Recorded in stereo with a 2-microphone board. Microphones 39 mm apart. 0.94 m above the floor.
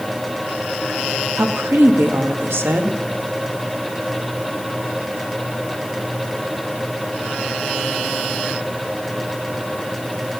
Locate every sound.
1.4 s a woman speaking: 75° right (ahead or behind), 1.0 m